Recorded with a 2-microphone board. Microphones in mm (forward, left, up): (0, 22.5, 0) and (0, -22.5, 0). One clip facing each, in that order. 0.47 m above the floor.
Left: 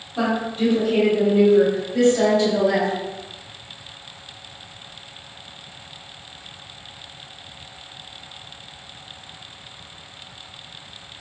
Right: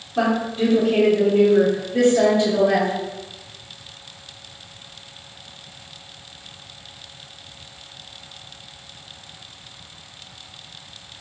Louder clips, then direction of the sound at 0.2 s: Right 2 dB; 20° right (ahead or behind).